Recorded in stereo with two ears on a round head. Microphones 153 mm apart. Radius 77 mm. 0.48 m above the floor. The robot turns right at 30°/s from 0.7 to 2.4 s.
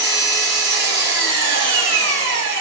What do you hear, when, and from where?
0.0 s an engine running: 120° right, 1.3 m; by 2.6 s 70° right, 1.3 m